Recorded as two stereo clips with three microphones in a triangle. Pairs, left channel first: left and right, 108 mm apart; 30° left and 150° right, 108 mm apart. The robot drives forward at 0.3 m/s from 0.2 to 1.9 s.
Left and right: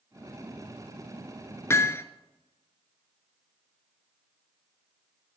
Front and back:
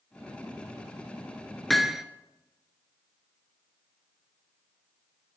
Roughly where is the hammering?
Behind left.